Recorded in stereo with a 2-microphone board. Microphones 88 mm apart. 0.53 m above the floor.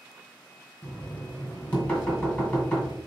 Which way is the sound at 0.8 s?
15° left (ahead or behind).